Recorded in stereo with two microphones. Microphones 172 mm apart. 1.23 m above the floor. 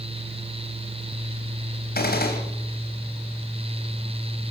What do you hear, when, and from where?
1.9 s a gunshot: 65° left (ahead or behind), 3.5 m